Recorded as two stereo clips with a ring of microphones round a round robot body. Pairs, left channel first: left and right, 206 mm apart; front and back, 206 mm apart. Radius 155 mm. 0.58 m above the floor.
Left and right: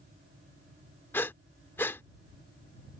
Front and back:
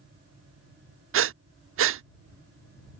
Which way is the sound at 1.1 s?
170° left.